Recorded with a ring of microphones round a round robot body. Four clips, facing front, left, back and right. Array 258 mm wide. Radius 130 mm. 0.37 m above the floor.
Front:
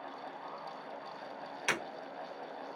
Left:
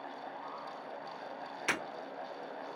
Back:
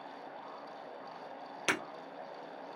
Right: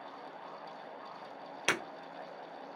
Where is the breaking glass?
125° right, 1.8 m.